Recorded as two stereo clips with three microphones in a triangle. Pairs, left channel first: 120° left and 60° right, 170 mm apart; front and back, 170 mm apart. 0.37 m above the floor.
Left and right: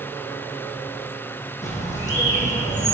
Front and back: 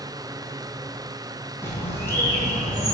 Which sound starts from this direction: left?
A bird, at 1.6 s.